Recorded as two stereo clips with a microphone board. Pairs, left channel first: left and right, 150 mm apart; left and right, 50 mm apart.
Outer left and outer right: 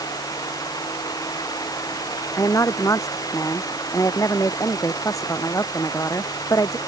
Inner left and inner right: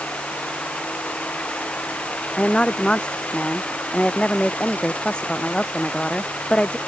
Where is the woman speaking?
20° left (ahead or behind).